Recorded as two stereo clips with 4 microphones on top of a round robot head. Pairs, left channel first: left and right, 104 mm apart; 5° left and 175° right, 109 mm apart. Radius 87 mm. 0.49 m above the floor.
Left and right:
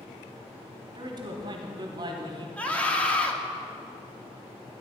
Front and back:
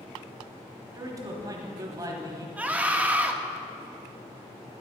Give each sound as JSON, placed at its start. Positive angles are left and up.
{"t": 0.9, "sound": "a man speaking", "azimuth_deg": -125, "distance_m": 1.2}
{"t": 2.6, "sound": "a scream", "azimuth_deg": 140, "distance_m": 1.1}